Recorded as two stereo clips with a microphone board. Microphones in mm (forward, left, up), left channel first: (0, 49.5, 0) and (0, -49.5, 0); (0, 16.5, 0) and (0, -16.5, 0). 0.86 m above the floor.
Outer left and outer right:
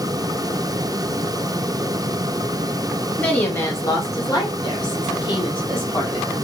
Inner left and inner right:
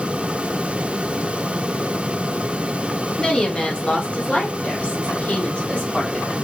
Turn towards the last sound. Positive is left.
turn(degrees=55)  # may be behind; listen again after turning